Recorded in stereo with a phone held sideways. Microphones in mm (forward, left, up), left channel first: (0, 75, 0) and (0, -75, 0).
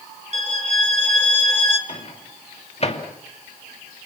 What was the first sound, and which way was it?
A violin, 50° right (ahead or behind).